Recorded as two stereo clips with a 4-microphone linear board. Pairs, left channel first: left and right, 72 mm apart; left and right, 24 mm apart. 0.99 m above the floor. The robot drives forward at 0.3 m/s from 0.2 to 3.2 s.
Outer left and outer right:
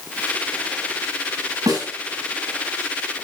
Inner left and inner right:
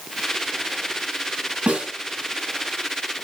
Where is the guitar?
No guitar in this recording.